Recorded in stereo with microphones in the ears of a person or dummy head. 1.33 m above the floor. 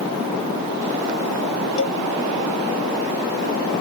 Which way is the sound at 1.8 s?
70° left (ahead or behind).